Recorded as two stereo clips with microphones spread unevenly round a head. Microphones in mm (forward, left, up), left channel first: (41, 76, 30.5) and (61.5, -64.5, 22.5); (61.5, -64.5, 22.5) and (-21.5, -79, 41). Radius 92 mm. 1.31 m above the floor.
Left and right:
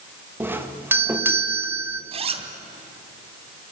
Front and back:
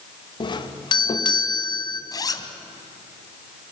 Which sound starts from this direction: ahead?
A doorbell, at 0.4 s.